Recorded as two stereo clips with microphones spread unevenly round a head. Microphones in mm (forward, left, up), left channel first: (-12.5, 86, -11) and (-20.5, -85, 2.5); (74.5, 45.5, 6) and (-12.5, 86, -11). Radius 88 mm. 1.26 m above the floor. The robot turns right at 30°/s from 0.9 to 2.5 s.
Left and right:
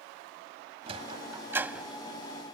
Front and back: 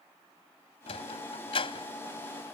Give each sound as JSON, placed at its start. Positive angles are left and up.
{"t": 0.9, "sound": "a sliding door", "azimuth_deg": -35}